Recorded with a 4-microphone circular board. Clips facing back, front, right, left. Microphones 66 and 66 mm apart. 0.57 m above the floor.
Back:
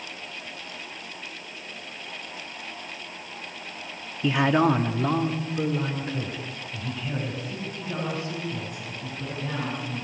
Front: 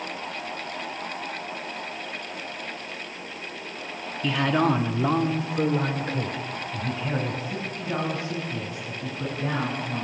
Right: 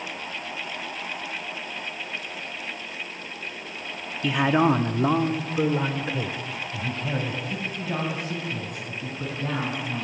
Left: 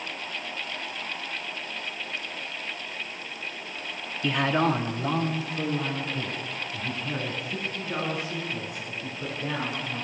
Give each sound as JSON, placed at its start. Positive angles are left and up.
{"t": 4.2, "sound": "a man speaking", "azimuth_deg": 175, "distance_m": 1.1}